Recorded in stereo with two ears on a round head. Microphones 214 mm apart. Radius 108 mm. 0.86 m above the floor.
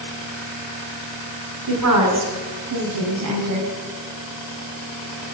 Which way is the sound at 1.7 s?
65° right (ahead or behind).